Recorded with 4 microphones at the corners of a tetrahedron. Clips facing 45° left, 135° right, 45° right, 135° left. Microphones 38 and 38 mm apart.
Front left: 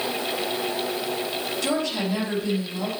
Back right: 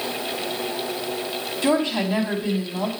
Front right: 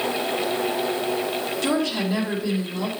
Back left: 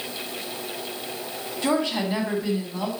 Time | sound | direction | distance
1.6 | a woman speaking | 170° right | 2 m